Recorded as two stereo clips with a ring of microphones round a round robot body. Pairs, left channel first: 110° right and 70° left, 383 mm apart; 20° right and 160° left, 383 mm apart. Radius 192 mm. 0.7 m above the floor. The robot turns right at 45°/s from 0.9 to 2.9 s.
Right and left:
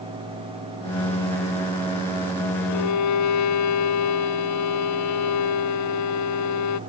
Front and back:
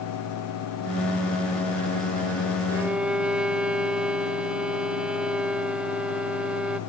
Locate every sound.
2.7 s a violin: 125° right; by 6.8 s 115° right